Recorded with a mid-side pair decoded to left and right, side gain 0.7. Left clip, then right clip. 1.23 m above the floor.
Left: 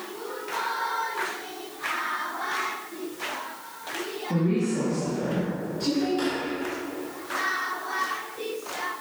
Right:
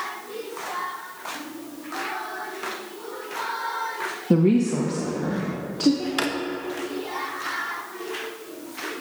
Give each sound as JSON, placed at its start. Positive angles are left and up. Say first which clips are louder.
{"t": 4.3, "sound": "a woman speaking", "louder": "right 6 dB", "azimuth_deg": -55, "distance_m": 0.8}
{"t": 6.2, "sound": "a drawer", "louder": "right 2 dB", "azimuth_deg": -60, "distance_m": 0.9}